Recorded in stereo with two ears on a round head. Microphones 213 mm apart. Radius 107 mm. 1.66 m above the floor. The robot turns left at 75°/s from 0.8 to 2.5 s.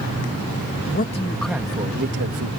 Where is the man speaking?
40° left; by 2.5 s 75° right.